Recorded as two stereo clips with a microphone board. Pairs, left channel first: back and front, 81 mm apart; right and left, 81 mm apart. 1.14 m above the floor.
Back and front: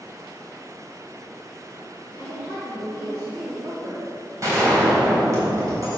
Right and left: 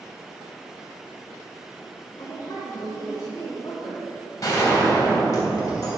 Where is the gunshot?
50° right, 3 m.